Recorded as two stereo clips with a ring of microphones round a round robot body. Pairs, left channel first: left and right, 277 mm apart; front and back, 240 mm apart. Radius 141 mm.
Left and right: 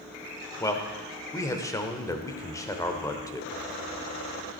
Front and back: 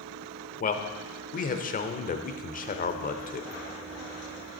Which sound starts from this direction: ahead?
A man speaking, at 0.6 s.